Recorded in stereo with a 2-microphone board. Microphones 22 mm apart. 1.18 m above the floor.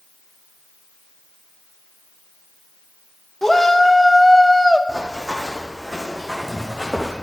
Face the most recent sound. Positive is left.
turn(degrees=5)  # may be behind; listen again after turning